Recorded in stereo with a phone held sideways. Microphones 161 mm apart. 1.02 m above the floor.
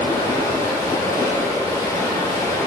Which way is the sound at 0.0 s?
20° left (ahead or behind).